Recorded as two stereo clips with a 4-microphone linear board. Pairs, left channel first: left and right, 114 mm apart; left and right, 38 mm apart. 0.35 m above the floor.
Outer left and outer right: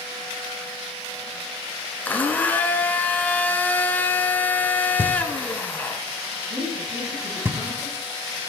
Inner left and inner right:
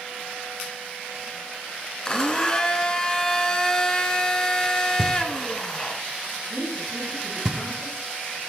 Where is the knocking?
20° right (ahead or behind), 0.8 m.